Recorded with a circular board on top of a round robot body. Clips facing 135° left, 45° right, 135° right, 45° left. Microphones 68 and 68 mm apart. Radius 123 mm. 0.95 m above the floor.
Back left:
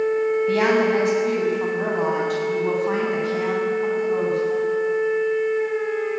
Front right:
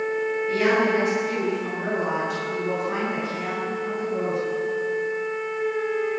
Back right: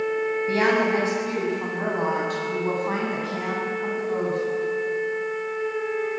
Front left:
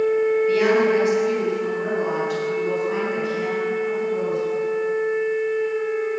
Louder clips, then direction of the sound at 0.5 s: Even, even; 165° left.